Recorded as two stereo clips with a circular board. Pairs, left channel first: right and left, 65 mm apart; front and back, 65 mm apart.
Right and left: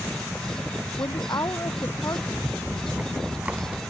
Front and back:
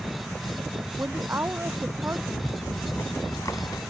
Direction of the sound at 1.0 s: 125° right.